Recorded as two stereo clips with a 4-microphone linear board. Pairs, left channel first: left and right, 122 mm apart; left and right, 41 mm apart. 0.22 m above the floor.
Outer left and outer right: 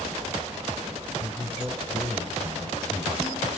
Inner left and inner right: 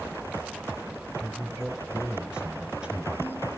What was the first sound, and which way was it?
A man speaking, 20° right (ahead or behind).